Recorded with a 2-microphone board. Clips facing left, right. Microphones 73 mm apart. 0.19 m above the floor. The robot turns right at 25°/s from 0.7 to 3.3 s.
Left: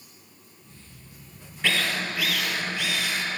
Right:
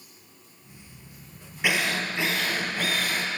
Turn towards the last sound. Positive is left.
turn(degrees=-125)